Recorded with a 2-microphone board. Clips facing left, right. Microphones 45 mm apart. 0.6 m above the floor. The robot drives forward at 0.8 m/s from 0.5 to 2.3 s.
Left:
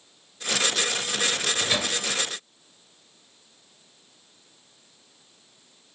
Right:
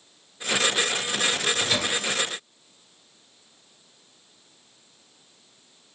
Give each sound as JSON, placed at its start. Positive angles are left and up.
{"t": 1.3, "sound": "a microwave", "side_deg": 10, "distance_m": 1.7}